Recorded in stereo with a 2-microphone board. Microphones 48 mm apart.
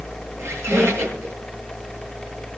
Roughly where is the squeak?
Right.